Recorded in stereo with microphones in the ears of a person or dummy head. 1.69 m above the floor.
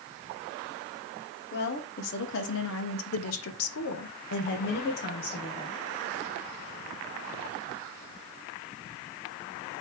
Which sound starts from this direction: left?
A woman speaking, at 1.5 s.